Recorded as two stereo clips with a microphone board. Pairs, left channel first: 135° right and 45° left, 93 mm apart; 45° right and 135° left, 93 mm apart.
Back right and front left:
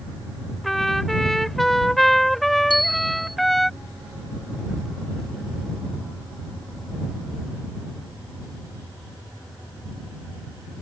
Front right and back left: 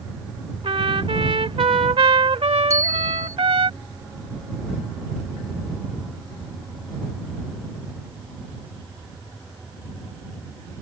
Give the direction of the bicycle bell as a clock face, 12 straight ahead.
6 o'clock.